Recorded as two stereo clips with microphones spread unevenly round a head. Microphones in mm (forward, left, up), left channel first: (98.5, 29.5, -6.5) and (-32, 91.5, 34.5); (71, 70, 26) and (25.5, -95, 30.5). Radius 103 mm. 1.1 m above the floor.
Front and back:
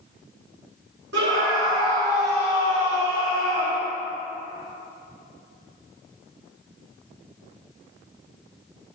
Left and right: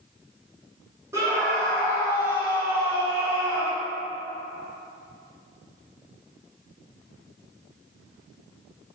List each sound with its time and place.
1.1 s a scream: straight behind, 2.5 m